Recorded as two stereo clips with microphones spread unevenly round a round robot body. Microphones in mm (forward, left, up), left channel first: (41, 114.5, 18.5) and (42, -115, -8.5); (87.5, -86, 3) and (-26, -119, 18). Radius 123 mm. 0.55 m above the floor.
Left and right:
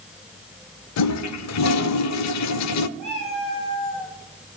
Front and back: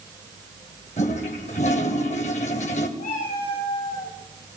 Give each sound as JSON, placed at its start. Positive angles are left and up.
{"t": 1.0, "sound": "a toilet flushing", "azimuth_deg": 80, "distance_m": 0.5}
{"t": 3.0, "sound": "a cat meowing", "azimuth_deg": 30, "distance_m": 5.0}